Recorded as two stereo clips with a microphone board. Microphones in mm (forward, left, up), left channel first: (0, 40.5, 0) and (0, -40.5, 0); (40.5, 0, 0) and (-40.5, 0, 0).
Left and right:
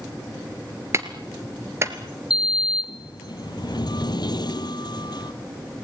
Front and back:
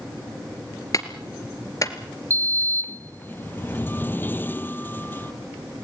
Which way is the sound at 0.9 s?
40° right.